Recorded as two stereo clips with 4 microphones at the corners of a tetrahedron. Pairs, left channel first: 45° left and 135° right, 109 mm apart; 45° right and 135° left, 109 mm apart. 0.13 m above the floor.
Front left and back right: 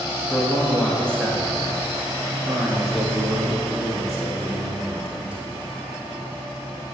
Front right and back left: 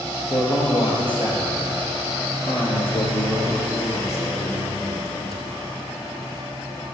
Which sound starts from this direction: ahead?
A man speaking, at 0.3 s.